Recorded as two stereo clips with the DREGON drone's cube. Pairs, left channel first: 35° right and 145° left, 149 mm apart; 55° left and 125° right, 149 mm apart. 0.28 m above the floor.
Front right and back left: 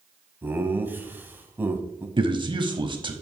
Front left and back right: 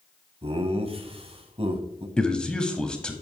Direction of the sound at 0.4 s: 145° right.